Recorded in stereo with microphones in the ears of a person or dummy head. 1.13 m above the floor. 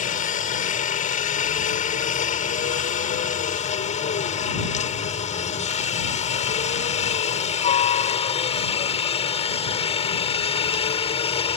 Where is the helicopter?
40° left (ahead or behind); by 11.6 s 30° left (ahead or behind).